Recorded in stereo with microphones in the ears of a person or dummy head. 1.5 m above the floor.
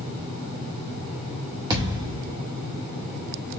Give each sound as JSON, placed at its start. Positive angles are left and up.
{"t": 1.7, "sound": "a thud", "side_deg": -25, "distance_m": 1.5}